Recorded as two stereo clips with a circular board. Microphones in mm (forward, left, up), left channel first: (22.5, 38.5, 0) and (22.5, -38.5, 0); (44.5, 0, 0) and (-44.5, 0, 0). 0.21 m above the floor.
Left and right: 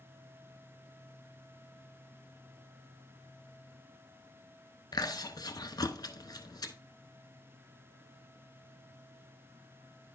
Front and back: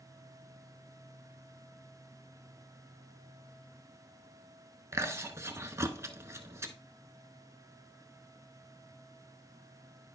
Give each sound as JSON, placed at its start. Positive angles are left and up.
{"t": 4.9, "sound": "chewing", "azimuth_deg": 120, "distance_m": 0.7}